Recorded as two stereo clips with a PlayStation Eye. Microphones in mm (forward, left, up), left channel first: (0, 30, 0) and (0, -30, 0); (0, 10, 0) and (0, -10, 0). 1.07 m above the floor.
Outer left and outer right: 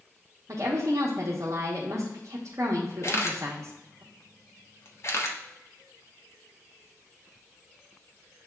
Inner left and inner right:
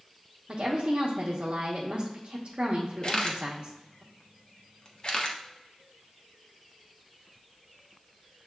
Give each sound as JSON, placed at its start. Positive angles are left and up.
{"t": 0.5, "sound": "a woman speaking", "side_deg": -55, "distance_m": 0.8}
{"t": 3.0, "sound": "a camera shutter", "side_deg": 50, "distance_m": 0.6}